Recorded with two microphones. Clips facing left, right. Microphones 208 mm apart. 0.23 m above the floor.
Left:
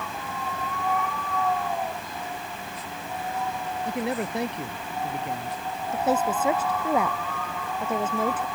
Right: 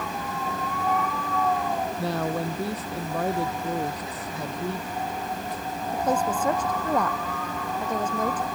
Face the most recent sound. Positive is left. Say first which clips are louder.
# left 1 dB
turn(degrees=5)  # may be behind; listen again after turning